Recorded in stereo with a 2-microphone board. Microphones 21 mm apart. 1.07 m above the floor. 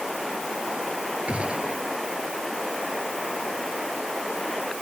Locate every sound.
1.3 s a gunshot: 85° right